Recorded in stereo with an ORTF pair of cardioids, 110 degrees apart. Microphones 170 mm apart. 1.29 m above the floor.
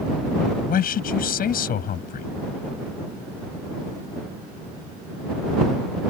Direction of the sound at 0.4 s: 60° left.